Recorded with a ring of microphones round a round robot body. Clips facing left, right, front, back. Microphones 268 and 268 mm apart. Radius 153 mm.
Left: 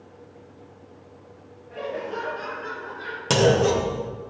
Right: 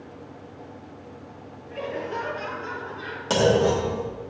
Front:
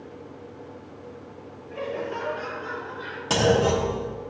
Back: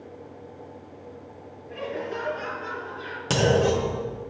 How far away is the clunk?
About 2.5 m.